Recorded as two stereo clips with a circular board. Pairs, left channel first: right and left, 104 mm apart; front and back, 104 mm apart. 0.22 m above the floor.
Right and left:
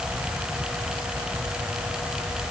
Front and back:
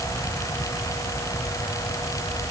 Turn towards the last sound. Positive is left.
No sound to turn to.